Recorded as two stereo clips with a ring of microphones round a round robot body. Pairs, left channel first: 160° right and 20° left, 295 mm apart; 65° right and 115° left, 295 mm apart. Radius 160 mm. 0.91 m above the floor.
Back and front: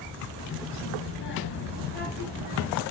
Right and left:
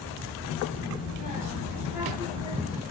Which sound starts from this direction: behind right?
A child speaking, at 0.4 s.